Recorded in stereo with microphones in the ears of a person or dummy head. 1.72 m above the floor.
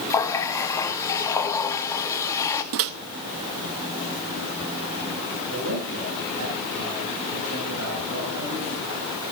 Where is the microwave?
55° right (ahead or behind), 0.6 m.